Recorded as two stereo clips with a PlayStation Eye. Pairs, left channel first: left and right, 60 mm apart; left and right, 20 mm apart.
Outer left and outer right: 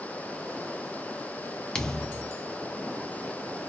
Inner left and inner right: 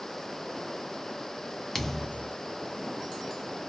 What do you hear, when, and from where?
1.8 s a thud: 10° left (ahead or behind), 0.6 m